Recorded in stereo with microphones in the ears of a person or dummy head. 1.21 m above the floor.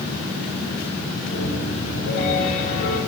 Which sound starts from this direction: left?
A piano, at 1.3 s.